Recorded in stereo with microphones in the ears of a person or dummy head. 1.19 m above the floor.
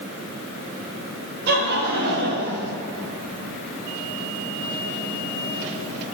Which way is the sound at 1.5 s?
55° right (ahead or behind).